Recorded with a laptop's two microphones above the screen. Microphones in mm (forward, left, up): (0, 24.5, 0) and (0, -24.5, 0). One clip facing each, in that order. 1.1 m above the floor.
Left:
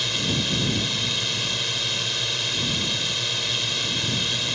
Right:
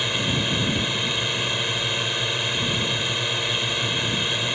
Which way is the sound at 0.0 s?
20° right (ahead or behind).